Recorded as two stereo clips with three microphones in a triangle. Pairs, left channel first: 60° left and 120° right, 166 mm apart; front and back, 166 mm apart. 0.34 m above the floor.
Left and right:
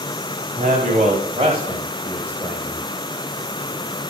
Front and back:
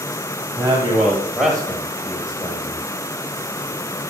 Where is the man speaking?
115° right, 2 m; by 2.9 s 30° right, 1.8 m.